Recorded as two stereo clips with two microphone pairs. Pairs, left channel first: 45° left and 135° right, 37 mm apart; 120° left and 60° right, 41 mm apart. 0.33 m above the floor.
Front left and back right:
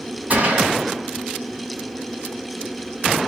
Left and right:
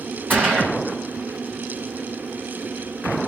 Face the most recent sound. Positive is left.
turn(degrees=-95)